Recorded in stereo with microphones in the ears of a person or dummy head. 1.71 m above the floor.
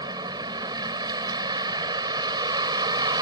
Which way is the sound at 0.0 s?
20° right (ahead or behind).